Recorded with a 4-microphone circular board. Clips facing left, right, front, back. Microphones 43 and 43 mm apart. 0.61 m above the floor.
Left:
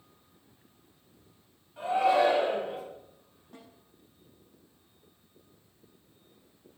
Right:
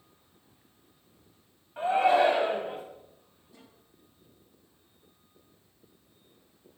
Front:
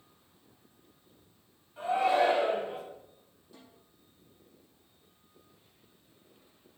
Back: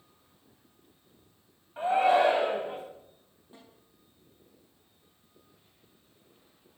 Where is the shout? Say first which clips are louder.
Right 2 dB, back 3 dB; 135° right, 4 m.